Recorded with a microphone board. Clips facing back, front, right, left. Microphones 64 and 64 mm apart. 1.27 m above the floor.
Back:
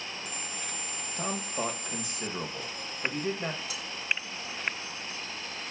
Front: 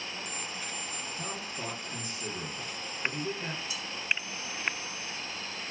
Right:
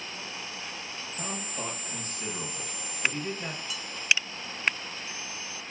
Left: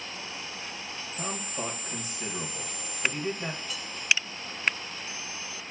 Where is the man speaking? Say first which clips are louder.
Back 9 dB, left 2 dB; 170° left, 1.2 m.